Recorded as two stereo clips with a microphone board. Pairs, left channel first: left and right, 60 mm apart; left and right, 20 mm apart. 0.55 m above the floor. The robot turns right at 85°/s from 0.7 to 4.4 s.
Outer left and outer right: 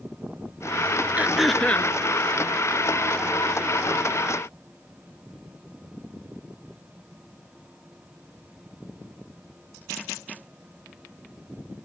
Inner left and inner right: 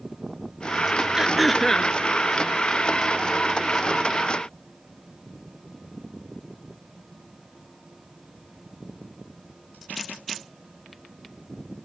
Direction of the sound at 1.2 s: 25° right.